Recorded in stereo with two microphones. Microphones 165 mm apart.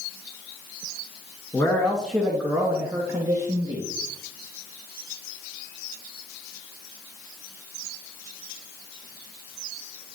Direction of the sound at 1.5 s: 20° left (ahead or behind).